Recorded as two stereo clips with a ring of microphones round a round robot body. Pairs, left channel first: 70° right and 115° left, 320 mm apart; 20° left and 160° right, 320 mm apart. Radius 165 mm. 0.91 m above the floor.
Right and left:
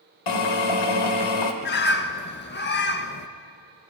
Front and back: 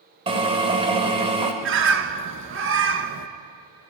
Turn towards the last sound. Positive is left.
turn(degrees=-115)